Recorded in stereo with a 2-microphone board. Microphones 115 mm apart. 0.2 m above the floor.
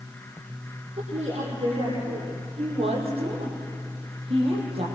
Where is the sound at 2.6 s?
60° right (ahead or behind), 8.5 m.